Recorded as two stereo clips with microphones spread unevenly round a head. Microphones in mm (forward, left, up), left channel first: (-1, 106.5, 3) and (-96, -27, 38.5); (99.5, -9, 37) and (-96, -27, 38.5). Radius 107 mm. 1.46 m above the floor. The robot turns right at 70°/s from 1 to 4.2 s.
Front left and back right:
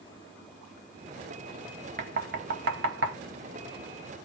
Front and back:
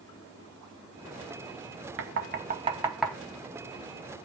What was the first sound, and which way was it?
Knocking, 160° right.